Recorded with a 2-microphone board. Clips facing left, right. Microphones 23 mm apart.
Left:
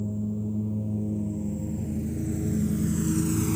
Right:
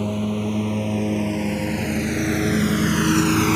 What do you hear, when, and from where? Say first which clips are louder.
0.0 s a lawn mower: right 7 dB; 75° right (ahead or behind); by 3.6 s 55° right (ahead or behind)